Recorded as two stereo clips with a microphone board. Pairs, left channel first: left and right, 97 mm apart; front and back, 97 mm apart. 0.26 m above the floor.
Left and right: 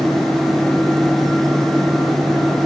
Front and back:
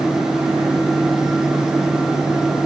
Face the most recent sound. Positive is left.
No sound to turn to.